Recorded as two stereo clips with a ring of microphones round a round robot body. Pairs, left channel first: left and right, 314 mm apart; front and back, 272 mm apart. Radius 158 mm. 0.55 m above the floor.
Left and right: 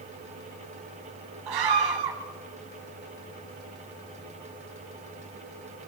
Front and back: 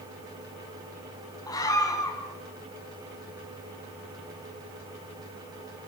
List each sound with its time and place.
1.5 s a scream: 80° right, 4.5 m